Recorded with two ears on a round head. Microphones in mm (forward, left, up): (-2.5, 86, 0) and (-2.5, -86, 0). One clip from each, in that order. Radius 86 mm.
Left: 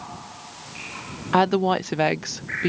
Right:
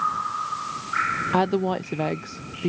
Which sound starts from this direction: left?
A woman speaking, at 1.3 s.